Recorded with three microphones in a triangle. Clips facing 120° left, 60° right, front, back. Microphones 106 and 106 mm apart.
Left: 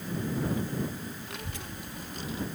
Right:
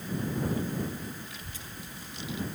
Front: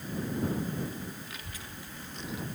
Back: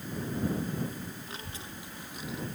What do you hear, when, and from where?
1.3 s a child speaking: 125° left; by 2.5 s 80° left